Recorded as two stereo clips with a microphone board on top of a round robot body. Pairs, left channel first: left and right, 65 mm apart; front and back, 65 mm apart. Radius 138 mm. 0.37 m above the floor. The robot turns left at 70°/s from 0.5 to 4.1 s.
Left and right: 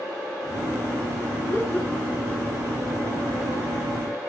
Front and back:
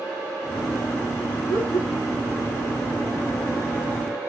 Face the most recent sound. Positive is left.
turn(degrees=-140)